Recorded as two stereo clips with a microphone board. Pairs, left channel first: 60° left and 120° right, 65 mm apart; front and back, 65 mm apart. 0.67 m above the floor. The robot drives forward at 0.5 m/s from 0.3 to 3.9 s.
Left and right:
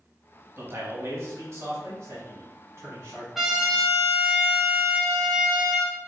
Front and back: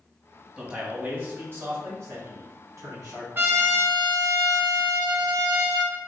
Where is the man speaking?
110° right, 1.0 m; by 3.2 s 160° right, 1.8 m.